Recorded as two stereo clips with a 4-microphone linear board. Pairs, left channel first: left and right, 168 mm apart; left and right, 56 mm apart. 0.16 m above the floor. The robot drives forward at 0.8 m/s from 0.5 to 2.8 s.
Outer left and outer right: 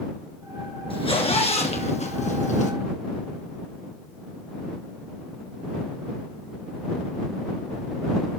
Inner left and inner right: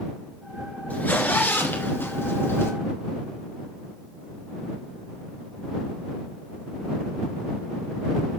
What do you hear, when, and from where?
0.9 s a zipper: 30° left (ahead or behind), 2.5 m; by 2.7 s 45° left (ahead or behind), 1.9 m